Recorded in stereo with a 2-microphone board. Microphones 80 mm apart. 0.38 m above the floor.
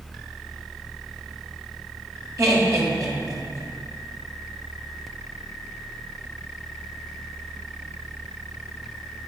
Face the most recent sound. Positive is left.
turn(degrees=-45)  # may be behind; listen again after turning